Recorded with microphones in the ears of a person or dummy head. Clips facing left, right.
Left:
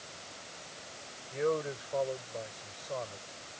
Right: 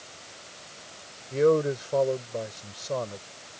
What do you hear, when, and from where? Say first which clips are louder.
1.3 s a man speaking: right 10 dB; 60° right (ahead or behind)